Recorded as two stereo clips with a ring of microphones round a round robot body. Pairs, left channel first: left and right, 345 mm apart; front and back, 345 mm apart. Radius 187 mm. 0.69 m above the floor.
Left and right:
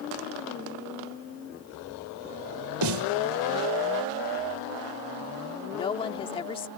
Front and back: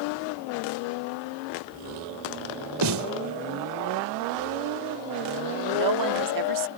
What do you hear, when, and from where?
2.8 s a snare drum: 135° right
5.7 s a woman speaking: 165° left